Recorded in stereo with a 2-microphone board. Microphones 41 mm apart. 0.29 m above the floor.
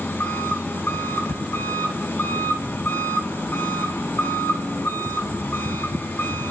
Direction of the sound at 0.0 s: 65° left (ahead or behind).